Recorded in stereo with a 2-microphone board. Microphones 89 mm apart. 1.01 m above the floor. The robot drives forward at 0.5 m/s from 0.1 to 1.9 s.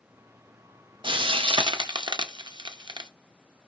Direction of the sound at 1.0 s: 75° right (ahead or behind).